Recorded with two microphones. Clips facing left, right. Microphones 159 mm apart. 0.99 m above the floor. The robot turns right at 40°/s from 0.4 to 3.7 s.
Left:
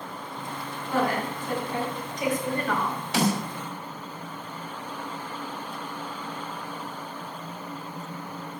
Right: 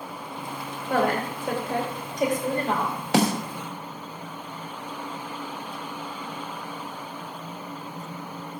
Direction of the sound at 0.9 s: 100° right.